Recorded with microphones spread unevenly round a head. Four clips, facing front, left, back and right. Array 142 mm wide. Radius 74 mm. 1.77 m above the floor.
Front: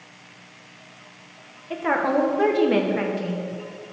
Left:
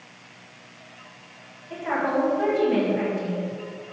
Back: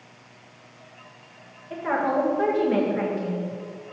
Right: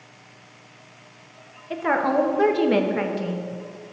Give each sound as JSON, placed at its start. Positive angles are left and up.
{"t": 1.7, "sound": "a woman speaking", "azimuth_deg": -60, "distance_m": 1.0}